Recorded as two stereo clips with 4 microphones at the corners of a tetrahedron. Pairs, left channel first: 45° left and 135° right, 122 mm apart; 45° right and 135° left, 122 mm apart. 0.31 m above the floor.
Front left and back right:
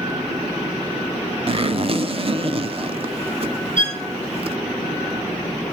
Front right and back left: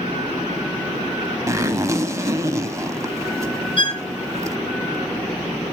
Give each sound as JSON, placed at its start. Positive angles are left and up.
{"t": 1.5, "sound": "a zipper", "azimuth_deg": -165, "distance_m": 0.5}
{"t": 3.8, "sound": "a violin", "azimuth_deg": -95, "distance_m": 2.5}